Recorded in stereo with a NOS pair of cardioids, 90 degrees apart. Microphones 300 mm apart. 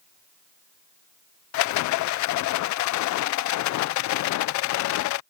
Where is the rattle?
70° left.